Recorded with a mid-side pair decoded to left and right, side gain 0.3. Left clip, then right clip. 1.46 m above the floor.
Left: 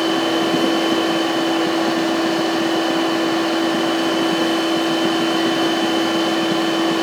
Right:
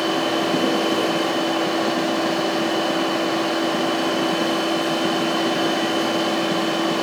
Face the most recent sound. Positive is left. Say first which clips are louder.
# left 3 dB
turn(degrees=25)